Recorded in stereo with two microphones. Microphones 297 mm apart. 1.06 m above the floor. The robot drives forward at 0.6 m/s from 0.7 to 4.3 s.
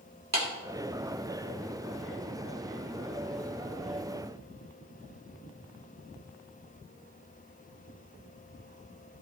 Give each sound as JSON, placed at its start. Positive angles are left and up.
{"t": 0.3, "sound": "a clap", "side_deg": -60, "distance_m": 2.5}